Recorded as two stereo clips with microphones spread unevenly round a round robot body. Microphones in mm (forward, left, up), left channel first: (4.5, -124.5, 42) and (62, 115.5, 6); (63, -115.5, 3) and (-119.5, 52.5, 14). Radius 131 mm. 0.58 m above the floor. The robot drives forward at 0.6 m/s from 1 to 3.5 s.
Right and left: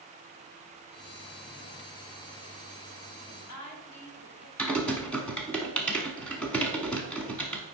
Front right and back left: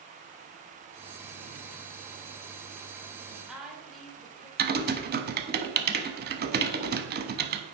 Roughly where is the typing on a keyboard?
Behind.